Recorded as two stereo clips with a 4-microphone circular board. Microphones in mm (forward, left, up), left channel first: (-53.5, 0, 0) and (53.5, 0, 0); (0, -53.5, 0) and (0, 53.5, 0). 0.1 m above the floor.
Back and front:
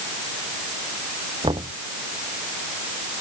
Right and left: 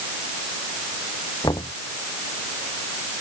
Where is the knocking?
40° right.